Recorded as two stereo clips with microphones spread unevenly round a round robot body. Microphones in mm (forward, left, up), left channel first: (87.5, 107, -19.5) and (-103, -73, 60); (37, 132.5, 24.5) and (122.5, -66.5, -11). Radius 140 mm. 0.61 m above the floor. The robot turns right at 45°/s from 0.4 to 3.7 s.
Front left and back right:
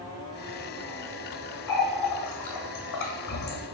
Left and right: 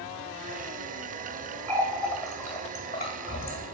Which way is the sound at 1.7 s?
5° right.